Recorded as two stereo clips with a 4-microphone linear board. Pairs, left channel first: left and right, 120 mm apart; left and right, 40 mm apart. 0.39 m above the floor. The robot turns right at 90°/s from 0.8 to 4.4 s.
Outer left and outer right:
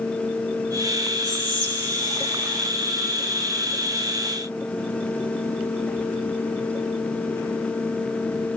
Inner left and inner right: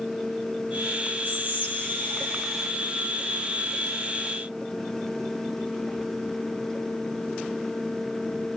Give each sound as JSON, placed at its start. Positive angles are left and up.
{"t": 1.2, "sound": "whispering", "azimuth_deg": 55, "distance_m": 1.7}